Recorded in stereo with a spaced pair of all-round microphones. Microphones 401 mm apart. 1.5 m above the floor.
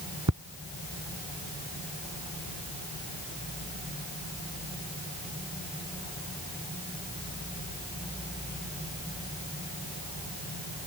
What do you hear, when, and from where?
0.3 s ticking: 45° right (ahead or behind)